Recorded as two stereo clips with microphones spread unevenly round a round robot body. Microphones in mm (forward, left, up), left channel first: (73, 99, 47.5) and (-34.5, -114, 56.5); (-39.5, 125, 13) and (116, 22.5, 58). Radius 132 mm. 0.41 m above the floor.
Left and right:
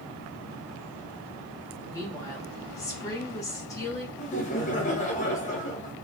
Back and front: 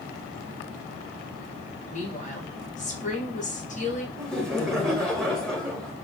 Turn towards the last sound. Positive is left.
turn(degrees=85)